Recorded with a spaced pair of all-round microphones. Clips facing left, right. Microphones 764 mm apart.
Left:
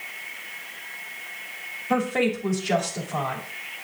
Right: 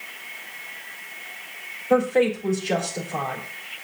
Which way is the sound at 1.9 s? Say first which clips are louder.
Right 4 dB; 40° left (ahead or behind).